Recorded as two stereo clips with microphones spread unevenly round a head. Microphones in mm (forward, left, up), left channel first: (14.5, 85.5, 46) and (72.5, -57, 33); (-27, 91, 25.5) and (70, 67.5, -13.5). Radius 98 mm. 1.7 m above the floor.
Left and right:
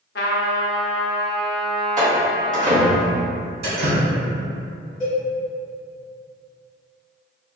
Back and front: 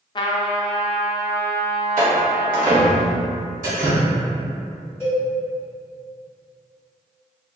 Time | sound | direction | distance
0.1 | a trumpet | 145° left | 0.5 m
2.0 | a door slam | 25° right | 1.3 m
3.6 | dripping | 50° right | 1.2 m
5.0 | a cowbell | 160° left | 1.2 m